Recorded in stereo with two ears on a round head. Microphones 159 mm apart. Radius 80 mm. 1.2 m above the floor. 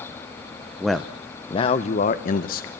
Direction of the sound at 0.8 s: 5° right (ahead or behind).